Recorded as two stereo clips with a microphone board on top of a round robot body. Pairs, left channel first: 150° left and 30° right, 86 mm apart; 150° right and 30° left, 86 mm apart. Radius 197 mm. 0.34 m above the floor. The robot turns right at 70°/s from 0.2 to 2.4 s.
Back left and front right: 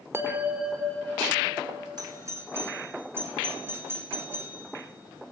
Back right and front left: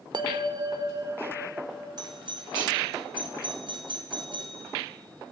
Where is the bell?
25° left, 2.0 m; by 1.9 s 140° left, 2.0 m.